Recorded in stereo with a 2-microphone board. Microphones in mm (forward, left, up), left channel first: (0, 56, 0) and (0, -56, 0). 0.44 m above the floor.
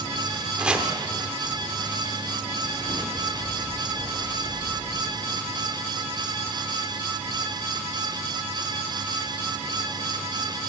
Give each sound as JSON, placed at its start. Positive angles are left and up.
{"t": 0.6, "sound": "chopping", "side_deg": -10, "distance_m": 0.9}